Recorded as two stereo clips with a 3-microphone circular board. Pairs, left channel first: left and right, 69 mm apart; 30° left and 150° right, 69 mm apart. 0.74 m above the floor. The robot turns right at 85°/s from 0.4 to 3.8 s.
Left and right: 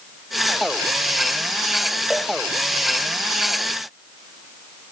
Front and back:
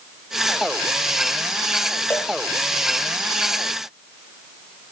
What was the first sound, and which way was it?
A cowbell, straight ahead.